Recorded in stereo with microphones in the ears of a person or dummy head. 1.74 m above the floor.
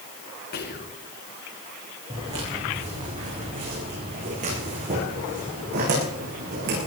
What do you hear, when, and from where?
0.5 s whispering: 45° left (ahead or behind), 2 m
2.1 s footsteps: 20° right (ahead or behind), 8 m; by 6.8 s 55° right (ahead or behind), 11 m